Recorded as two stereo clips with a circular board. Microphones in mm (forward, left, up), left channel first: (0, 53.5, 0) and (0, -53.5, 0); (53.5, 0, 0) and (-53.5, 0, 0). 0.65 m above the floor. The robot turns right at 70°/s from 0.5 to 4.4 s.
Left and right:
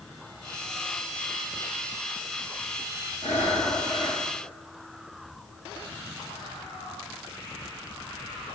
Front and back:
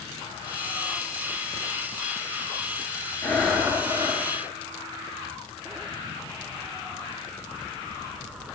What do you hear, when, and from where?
3.2 s breathing: 70° left, 7.5 m; by 4.2 s 145° left, 7.5 m